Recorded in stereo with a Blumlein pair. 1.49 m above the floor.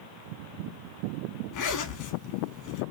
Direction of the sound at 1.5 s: 40° left.